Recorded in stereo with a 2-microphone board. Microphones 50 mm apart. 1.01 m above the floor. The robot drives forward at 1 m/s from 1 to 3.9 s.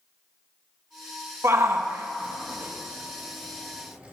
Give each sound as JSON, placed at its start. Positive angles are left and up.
{"t": 1.4, "sound": "a shout", "side_deg": -65, "distance_m": 1.2}